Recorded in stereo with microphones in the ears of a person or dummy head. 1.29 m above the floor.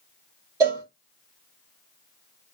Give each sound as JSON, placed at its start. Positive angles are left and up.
{"t": 0.6, "sound": "a cowbell", "side_deg": -15, "distance_m": 0.7}